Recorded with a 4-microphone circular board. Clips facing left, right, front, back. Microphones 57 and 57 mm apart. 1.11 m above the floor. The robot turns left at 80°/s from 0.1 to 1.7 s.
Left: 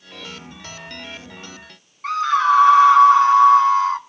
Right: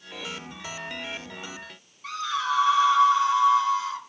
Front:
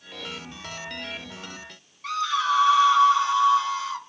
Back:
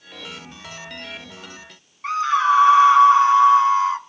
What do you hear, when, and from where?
2.0 s a scream: 125° left, 1.7 m